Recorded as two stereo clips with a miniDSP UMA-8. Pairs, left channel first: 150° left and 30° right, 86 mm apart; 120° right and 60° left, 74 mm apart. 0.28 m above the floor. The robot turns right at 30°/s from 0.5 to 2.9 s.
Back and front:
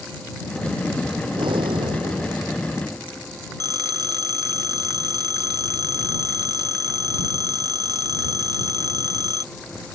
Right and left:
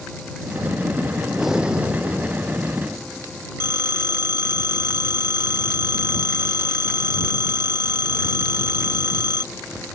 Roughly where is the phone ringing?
Ahead.